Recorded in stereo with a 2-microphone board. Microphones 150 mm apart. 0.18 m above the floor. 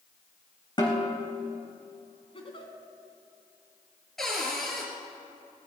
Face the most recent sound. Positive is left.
turn(degrees=0)  # may be behind; listen again after turning